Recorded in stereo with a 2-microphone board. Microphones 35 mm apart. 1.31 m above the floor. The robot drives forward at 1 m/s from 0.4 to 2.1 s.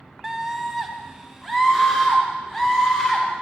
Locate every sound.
0.2 s a scream: 10° right (ahead or behind), 0.5 m; by 3.3 s 5° right (ahead or behind), 2 m